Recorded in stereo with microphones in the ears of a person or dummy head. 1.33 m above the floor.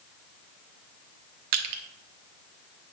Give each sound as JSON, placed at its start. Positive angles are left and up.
{"t": 1.5, "sound": "crushing", "side_deg": -50, "distance_m": 1.2}